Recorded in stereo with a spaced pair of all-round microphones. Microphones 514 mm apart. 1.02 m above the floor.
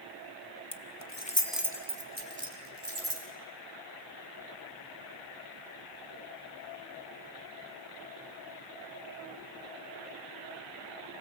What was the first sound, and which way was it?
Keys jangling, 55° left (ahead or behind).